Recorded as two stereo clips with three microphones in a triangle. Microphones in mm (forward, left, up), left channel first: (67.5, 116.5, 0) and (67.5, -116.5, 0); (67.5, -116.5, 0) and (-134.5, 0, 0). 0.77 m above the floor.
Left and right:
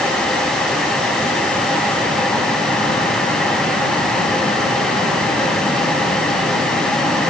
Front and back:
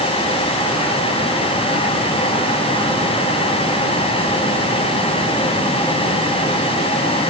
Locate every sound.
Only background noise.